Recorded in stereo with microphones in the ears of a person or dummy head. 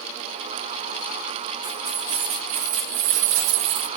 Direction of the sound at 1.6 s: 15° right (ahead or behind).